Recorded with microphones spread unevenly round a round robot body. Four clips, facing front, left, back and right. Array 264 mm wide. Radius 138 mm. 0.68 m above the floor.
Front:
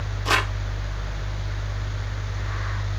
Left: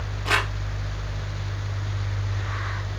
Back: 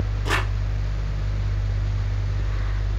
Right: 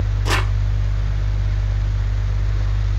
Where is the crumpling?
115° right, 3 m.